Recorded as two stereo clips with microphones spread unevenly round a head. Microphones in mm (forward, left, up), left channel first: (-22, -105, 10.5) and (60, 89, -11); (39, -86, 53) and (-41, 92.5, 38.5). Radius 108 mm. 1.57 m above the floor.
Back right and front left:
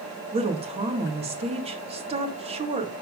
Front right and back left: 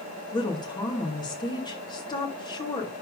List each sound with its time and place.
0.3 s a woman speaking: 5° left, 2 m